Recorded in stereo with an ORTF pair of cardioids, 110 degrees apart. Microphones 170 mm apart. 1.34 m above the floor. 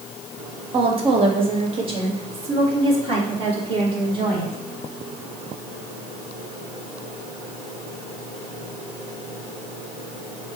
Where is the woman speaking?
35° right, 1.6 m; by 4.5 s 30° right, 3.5 m.